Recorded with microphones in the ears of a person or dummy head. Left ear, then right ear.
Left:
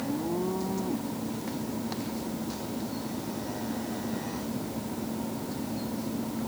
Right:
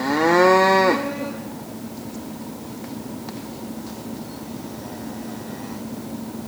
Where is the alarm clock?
No alarm clock in this recording.